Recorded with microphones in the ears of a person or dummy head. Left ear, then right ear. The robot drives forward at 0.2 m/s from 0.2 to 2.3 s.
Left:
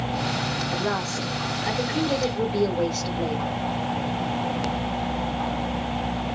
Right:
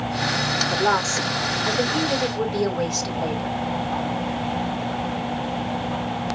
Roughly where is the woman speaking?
Right.